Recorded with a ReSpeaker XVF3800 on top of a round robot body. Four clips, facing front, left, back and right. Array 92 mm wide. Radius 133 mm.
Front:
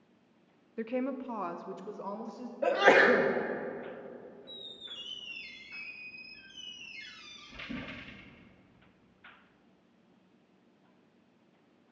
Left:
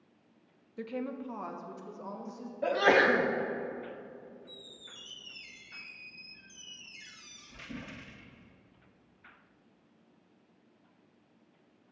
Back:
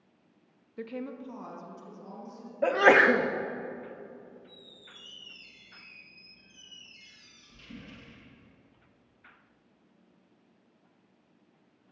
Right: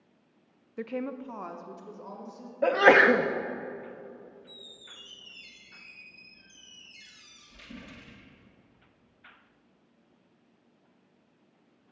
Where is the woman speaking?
70° right, 0.6 m; by 2.5 s 15° left, 1.2 m.